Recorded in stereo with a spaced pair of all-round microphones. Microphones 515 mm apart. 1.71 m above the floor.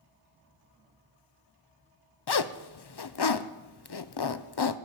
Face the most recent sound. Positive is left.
turn(degrees=50)  # may be behind; listen again after turning